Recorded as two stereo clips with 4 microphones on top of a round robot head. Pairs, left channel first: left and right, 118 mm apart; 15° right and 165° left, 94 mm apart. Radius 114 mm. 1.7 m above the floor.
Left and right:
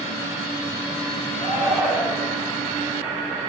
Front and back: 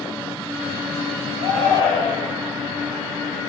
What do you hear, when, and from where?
1.4 s a shout: 135° right, 6.5 m